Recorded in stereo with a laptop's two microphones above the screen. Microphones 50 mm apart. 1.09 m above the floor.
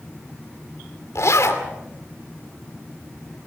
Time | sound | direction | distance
1.1 | a zipper | 70° left (ahead or behind) | 2.5 m